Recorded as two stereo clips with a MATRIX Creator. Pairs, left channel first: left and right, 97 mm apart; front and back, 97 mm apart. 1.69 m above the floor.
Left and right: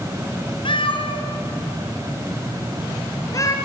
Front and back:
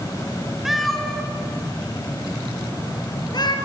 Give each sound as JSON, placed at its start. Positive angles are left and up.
{"t": 0.7, "sound": "a cat meowing", "azimuth_deg": 90, "distance_m": 3.0}